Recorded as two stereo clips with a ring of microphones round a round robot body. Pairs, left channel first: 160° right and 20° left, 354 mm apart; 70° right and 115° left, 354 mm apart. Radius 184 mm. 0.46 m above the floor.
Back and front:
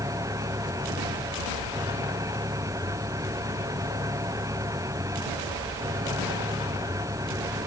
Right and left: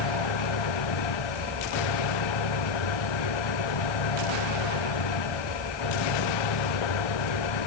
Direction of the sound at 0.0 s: 60° right.